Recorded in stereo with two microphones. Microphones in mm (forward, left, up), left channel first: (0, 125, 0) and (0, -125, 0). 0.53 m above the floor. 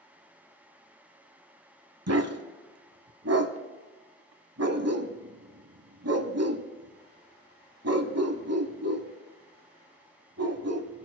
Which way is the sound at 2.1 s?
75° right (ahead or behind).